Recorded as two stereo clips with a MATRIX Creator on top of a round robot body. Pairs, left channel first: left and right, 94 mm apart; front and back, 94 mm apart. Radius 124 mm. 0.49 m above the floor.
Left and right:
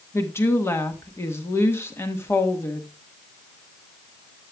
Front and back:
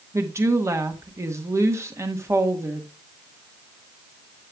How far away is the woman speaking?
About 1.4 m.